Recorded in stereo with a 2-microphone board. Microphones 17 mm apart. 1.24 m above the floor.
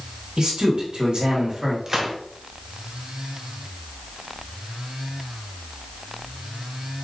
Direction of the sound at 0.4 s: 60° right (ahead or behind).